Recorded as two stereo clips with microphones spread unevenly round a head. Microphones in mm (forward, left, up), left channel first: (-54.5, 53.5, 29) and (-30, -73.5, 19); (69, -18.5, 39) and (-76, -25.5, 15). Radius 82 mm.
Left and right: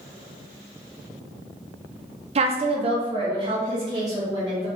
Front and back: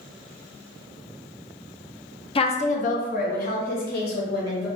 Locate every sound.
2.4 s a woman speaking: 50° right, 0.5 m; by 4.7 s 15° right, 1.5 m